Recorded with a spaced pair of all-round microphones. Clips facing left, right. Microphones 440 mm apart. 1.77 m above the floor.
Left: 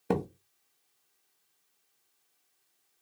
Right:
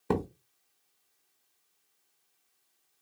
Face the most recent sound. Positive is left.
turn(degrees=-10)  # may be behind; listen again after turning